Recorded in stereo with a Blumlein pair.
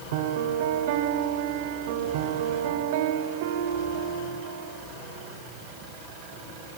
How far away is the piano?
About 1.7 m.